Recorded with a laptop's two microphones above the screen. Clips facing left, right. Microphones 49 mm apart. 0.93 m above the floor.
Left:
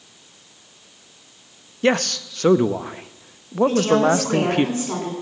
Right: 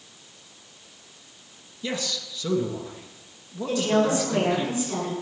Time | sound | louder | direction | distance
1.8 | a man speaking | left 11 dB | 55° left (ahead or behind) | 0.7 m
3.7 | a woman speaking | left 4 dB | 45° left (ahead or behind) | 10 m